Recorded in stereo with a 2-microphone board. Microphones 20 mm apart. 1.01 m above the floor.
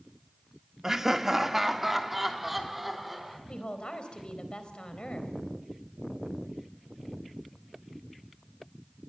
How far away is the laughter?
About 1.5 m.